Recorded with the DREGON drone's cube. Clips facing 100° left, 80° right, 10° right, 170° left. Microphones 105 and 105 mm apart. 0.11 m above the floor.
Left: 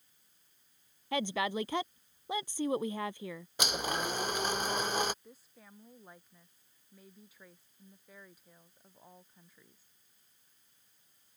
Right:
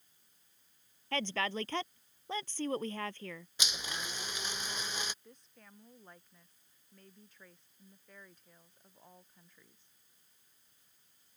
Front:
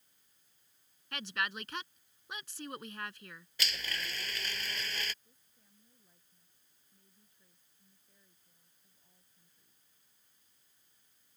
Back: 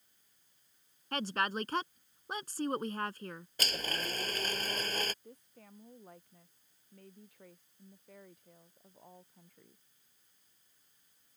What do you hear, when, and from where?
1.1 s a woman speaking: 170° left
3.6 s a blender: 130° left
5.2 s a woman speaking: 175° right